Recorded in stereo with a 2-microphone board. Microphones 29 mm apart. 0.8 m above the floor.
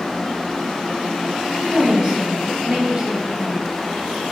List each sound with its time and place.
1.6 s a woman speaking: 25° right (ahead or behind), 1.0 m